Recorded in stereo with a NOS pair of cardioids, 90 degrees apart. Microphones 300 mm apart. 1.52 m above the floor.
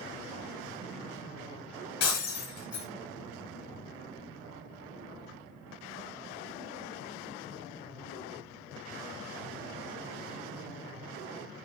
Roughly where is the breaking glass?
Ahead left.